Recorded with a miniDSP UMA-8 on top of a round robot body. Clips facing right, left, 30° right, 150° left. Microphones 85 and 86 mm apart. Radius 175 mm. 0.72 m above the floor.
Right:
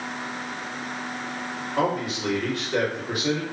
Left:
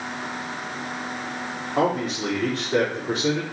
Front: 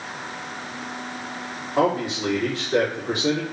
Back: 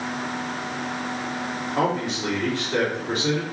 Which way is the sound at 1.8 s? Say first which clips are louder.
Left 2 dB, front 3 dB; 40° left.